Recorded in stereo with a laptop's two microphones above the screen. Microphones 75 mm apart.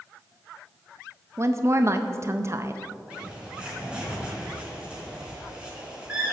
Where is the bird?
15° right (ahead or behind), 3.5 m.